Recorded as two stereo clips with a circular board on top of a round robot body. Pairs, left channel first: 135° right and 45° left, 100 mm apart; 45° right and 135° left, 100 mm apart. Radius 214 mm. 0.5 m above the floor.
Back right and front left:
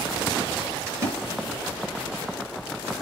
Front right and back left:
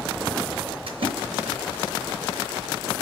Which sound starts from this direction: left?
A splash, at 0.9 s.